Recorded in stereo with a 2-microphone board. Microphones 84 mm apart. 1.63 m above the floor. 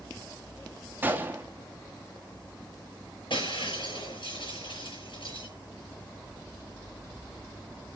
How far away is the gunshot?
About 1.3 m.